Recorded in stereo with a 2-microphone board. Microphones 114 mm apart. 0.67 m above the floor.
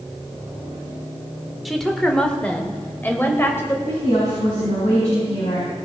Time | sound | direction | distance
1.6 | a woman speaking | centre (ahead or behind) | 1.6 m
3.9 | a woman speaking | 70° left (ahead or behind) | 6 m